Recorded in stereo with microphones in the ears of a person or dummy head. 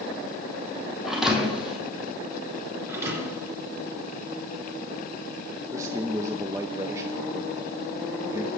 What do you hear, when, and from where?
1.1 s a thud: 5° right (ahead or behind), 2.5 m
2.9 s a thud: 15° right (ahead or behind), 3 m
5.7 s a man speaking: 15° right (ahead or behind), 0.7 m